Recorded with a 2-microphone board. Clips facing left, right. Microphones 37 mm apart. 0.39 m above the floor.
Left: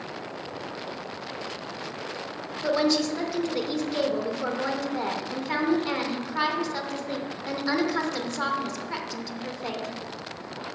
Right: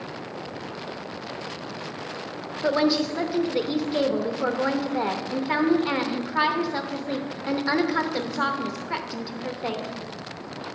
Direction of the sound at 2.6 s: 15° right (ahead or behind).